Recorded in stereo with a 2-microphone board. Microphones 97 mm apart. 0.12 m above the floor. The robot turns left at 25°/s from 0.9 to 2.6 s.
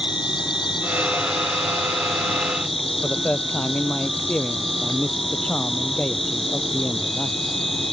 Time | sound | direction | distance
0.0 | an insect | 125° left | ?
3.0 | a man speaking | 15° left (ahead or behind) | ?